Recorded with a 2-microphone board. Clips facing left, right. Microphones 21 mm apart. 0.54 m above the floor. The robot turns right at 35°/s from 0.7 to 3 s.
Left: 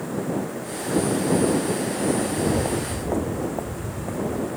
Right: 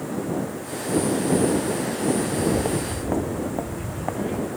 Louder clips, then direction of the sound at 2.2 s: Even; 25° right (ahead or behind).